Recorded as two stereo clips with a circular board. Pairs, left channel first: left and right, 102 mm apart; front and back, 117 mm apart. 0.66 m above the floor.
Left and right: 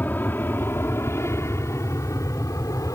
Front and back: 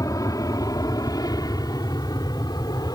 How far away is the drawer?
No drawer in this recording.